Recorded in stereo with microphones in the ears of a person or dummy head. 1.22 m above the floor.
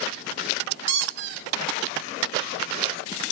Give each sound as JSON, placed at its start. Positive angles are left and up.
{"t": 0.9, "sound": "a squeak", "side_deg": -70, "distance_m": 1.4}